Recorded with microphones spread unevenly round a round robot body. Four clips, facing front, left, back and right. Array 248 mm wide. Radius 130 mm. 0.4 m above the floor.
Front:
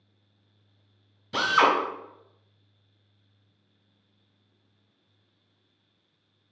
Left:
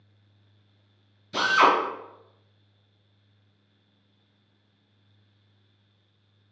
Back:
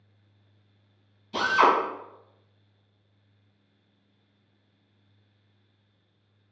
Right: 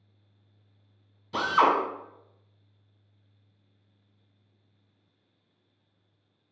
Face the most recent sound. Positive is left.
turn(degrees=-15)